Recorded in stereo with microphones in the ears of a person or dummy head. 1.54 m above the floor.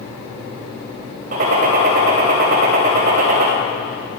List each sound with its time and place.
1.3 s a gunshot: 55° right (ahead or behind), 3 m